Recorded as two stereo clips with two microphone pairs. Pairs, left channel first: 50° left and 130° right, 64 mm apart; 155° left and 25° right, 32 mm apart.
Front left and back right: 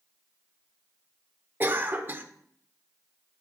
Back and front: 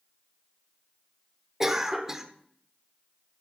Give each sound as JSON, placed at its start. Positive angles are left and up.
{"t": 1.6, "sound": "a cough", "azimuth_deg": -95, "distance_m": 0.9}